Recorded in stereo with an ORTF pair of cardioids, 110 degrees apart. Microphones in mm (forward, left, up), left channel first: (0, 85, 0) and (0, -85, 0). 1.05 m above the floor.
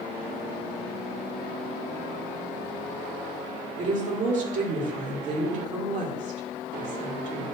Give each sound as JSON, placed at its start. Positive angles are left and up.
{"t": 3.8, "sound": "a woman speaking", "azimuth_deg": -45, "distance_m": 3.0}